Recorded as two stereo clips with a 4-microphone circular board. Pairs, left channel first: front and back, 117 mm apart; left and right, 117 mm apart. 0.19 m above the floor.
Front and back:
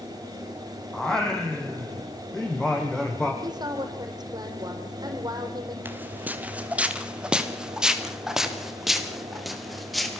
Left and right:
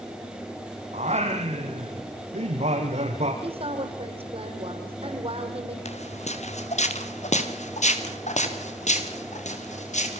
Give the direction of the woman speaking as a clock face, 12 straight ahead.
4 o'clock.